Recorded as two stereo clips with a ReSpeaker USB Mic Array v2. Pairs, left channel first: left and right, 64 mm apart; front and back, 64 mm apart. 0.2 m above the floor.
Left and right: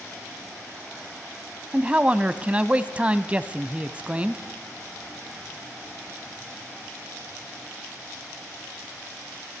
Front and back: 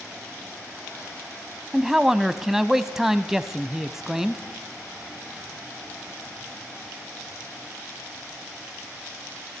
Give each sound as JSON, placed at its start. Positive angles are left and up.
{"t": 1.7, "sound": "a man speaking", "azimuth_deg": -105, "distance_m": 1.0}